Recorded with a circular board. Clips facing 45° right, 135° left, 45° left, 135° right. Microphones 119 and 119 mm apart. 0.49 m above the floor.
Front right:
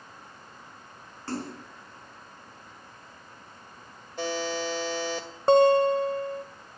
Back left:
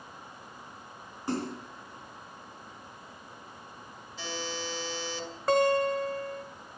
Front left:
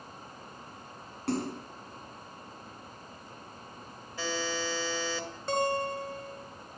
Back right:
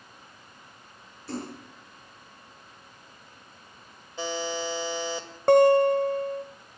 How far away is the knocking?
I don't hear knocking.